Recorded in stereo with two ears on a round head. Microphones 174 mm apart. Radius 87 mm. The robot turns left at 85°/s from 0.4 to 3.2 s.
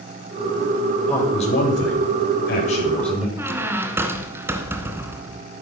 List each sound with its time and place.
1.1 s a man speaking: 175° left, 7.5 m; by 3.3 s 5° right, 7.5 m
3.4 s a squeak: 10° right (ahead or behind), 1.9 m